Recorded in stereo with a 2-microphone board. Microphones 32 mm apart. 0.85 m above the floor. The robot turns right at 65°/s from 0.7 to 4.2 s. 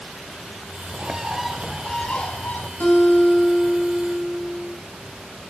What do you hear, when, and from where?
0.9 s a bird: 40° right, 0.8 m; by 2.7 s 80° left, 0.8 m
2.8 s a guitar: 110° left, 3 m; by 4.7 s 160° right, 3 m